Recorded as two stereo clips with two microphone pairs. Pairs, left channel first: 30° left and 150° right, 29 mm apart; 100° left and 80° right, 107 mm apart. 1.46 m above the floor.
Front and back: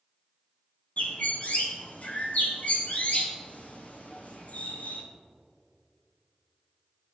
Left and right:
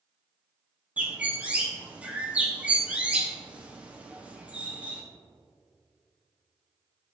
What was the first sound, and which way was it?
A bird, 5° right.